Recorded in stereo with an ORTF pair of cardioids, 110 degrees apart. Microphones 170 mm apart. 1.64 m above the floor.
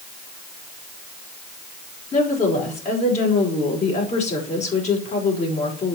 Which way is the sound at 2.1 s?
45° left.